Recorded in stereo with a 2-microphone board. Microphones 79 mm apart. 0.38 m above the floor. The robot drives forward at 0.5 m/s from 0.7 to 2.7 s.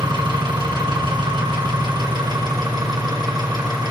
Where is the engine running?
80° right, 2.5 m; by 3.9 s 60° right (ahead or behind), 2.5 m.